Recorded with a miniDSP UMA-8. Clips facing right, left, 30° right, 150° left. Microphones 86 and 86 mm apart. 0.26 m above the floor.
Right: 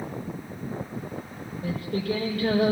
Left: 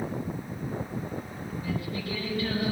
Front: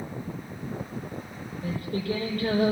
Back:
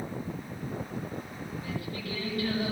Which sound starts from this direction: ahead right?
Singing, at 1.6 s.